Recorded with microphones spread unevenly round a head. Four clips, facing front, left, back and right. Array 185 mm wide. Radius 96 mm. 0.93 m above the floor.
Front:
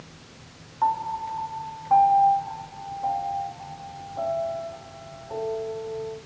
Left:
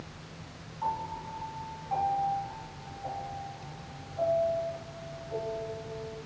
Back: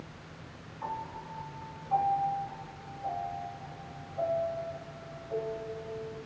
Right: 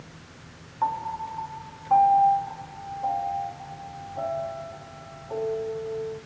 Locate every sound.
0.8 s a piano: 40° right, 2 m